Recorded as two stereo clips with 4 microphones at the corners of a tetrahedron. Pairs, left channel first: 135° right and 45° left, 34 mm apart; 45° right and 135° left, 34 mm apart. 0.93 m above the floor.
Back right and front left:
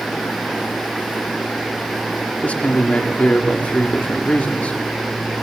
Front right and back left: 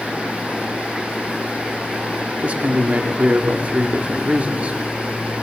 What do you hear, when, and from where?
2.4 s a man speaking: straight behind, 2 m